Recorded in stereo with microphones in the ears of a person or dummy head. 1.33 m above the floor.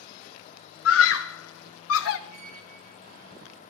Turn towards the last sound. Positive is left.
turn(degrees=-45)  # may be behind; listen again after turning